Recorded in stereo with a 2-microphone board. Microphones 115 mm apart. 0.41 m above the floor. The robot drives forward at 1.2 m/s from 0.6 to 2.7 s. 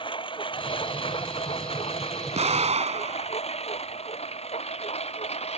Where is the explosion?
70° right (ahead or behind); by 3.4 s 75° right (ahead or behind).